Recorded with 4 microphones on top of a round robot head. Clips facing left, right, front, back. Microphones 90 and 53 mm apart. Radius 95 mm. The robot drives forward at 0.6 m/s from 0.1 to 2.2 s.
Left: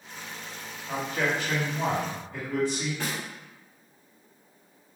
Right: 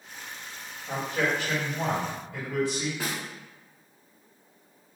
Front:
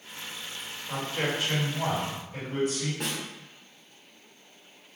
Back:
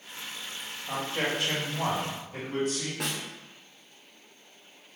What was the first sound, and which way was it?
A man speaking, 155° right.